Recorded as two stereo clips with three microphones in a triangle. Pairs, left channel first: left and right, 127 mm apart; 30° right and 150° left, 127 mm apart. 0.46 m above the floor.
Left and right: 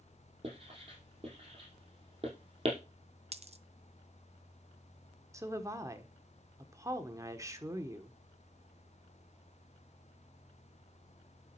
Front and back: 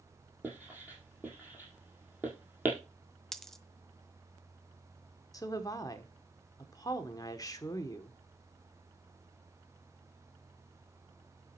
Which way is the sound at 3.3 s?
115° right.